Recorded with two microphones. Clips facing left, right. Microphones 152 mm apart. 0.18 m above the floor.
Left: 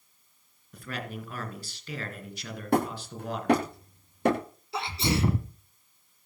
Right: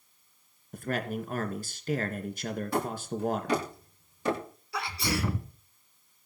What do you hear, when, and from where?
0.7 s a man speaking: 45° right (ahead or behind), 2.5 m
2.7 s hammering: 60° left (ahead or behind), 10 m
4.7 s a sneeze: 25° left (ahead or behind), 1.5 m